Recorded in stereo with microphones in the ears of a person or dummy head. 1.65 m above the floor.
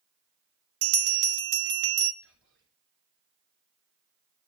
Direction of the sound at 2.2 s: 70° right (ahead or behind).